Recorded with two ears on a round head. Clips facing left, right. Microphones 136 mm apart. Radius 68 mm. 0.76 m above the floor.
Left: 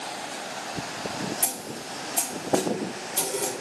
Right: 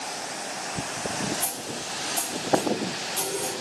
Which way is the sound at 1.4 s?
15° left (ahead or behind).